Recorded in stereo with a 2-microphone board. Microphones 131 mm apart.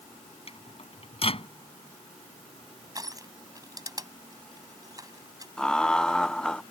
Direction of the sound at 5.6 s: 5° left (ahead or behind).